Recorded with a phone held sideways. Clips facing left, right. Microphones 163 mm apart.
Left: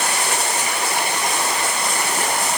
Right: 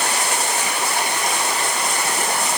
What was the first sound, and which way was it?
Only background noise.